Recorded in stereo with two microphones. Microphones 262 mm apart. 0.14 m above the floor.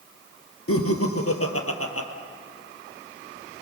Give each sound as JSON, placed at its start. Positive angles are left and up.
{"t": 0.7, "sound": "laughter", "side_deg": 65, "distance_m": 3.0}